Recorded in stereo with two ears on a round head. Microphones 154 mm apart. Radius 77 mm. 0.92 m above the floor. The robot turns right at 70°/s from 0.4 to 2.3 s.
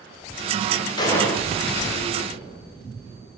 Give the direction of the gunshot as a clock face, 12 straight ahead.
7 o'clock.